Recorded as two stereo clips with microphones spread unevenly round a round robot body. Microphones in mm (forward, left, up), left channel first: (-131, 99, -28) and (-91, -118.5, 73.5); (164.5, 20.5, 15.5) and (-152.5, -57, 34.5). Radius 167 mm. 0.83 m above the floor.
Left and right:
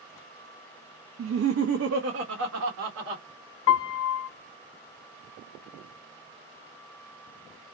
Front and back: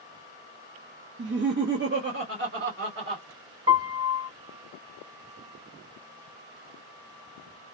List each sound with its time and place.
1.2 s laughter: 120° right, 0.7 m; by 3.2 s 105° right, 1.9 m
3.7 s a piano: 130° left, 0.5 m